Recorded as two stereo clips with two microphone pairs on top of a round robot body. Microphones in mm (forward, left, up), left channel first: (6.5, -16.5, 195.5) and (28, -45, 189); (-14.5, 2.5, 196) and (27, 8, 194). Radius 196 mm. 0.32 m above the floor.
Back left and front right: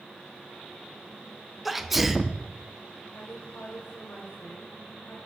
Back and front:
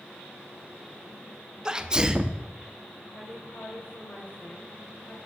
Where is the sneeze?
15° right, 0.9 m.